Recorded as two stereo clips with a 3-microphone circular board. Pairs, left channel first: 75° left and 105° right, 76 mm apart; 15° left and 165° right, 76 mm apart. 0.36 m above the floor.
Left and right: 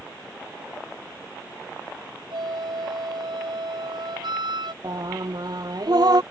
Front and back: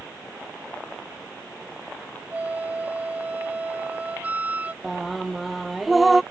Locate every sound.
2.3 s a flute: 95° right
4.8 s singing: 75° right